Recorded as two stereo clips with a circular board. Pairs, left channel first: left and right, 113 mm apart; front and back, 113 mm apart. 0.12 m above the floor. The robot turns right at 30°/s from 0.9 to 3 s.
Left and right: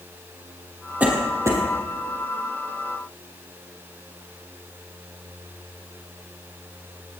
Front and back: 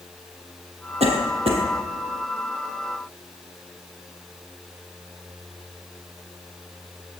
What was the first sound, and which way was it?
A cough, 165° right.